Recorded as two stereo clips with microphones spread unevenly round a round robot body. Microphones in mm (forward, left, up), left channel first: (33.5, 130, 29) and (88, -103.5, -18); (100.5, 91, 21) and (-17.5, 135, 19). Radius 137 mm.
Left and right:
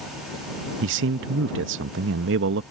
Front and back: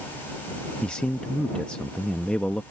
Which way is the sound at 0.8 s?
105° right.